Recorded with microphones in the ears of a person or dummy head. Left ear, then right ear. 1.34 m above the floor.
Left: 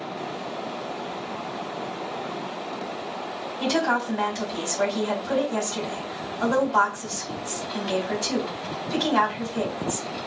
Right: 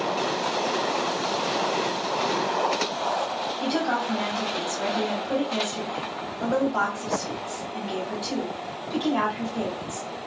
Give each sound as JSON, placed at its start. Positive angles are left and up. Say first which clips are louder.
{"t": 3.6, "sound": "a woman speaking", "louder": "left 4 dB", "side_deg": 65, "distance_m": 2.5}